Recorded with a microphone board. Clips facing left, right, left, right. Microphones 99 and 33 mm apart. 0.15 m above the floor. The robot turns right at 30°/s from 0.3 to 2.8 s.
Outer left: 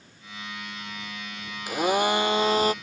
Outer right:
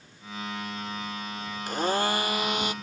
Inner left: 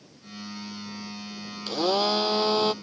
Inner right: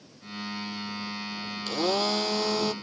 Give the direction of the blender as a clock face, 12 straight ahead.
12 o'clock.